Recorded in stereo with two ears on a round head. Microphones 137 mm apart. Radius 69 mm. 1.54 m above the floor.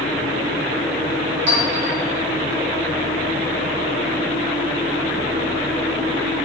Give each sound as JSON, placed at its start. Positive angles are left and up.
{"t": 1.5, "sound": "a clink", "side_deg": -45, "distance_m": 1.0}